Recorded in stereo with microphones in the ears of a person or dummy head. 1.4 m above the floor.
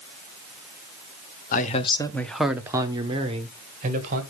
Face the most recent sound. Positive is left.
turn(degrees=-45)  # may be behind; listen again after turning